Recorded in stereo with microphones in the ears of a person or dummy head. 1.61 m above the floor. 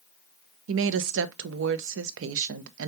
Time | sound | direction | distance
0.7 | a woman speaking | 80° right | 0.5 m